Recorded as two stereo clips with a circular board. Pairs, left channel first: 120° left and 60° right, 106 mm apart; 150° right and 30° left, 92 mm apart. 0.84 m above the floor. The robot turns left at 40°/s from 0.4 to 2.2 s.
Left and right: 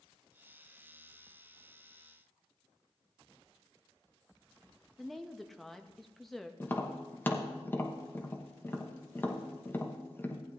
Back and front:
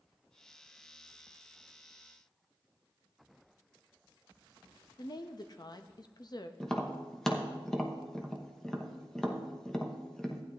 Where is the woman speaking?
155° right, 0.6 m.